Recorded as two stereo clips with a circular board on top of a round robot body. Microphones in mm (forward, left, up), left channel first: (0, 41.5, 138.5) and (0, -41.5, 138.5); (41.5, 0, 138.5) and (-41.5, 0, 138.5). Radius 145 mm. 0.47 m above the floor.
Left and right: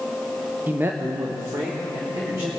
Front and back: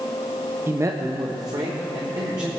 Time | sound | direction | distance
0.7 | a man speaking | 145° right | 0.8 m